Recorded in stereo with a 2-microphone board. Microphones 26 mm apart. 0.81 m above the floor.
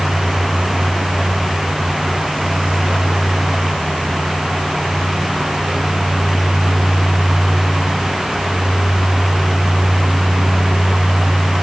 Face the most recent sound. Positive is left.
No sound to turn to.